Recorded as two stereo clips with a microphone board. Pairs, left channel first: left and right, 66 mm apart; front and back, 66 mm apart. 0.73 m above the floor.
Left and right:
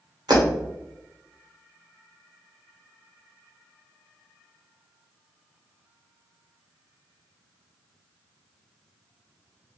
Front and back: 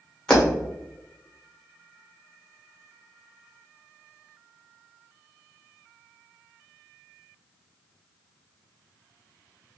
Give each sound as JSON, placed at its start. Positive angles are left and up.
{"t": 0.3, "sound": "breaking glass", "azimuth_deg": -75, "distance_m": 1.7}